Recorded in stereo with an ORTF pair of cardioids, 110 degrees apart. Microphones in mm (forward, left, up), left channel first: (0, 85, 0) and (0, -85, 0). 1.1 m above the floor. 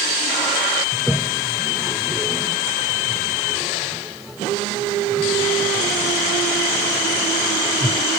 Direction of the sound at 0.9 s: Straight ahead.